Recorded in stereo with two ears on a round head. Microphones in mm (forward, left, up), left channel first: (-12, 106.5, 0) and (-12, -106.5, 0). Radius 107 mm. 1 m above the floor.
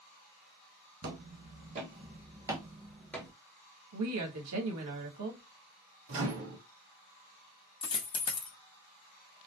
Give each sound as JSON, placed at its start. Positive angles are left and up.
{"t": 1.0, "sound": "footsteps", "side_deg": -45, "distance_m": 1.6}
{"t": 3.9, "sound": "a woman speaking", "side_deg": -75, "distance_m": 1.3}
{"t": 6.1, "sound": "a microwave", "side_deg": -60, "distance_m": 1.3}
{"t": 7.8, "sound": "a dropped coin", "side_deg": 20, "distance_m": 0.7}